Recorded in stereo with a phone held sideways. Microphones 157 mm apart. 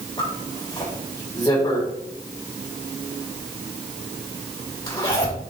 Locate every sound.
0.2 s a zipper: 30° left (ahead or behind), 4 m